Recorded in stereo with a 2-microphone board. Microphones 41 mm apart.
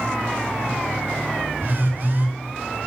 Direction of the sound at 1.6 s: 50° right (ahead or behind).